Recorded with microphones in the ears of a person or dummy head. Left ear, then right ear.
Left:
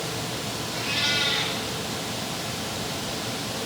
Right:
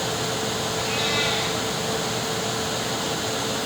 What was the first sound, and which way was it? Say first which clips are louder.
A cat meowing: left 1 dB; 80° left.